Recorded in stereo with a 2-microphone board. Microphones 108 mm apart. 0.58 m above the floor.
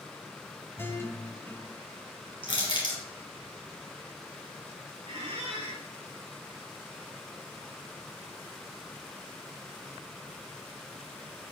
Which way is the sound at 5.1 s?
75° right (ahead or behind).